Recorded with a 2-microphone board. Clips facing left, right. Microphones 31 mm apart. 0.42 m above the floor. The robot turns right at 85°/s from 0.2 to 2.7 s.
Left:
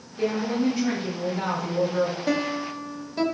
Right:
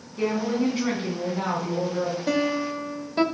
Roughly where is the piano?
Behind.